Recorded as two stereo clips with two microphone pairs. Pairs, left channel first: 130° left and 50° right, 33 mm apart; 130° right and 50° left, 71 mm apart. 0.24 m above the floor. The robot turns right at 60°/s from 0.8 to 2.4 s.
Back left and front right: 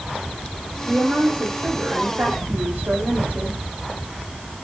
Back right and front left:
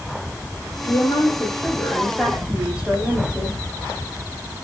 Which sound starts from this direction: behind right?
A woman speaking, at 0.8 s.